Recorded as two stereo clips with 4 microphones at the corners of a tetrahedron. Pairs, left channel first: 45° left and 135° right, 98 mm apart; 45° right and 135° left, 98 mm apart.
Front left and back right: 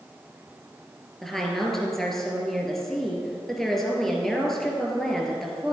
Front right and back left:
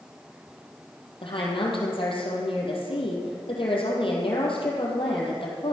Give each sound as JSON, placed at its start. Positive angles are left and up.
{"t": 1.2, "sound": "a woman speaking", "azimuth_deg": -40, "distance_m": 3.0}